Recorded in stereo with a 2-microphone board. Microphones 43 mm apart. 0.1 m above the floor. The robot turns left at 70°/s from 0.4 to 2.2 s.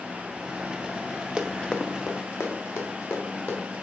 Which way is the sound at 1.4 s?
25° right (ahead or behind).